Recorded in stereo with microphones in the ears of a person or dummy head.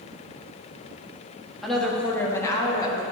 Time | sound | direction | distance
1.6 | a woman speaking | 5° left (ahead or behind) | 1.5 m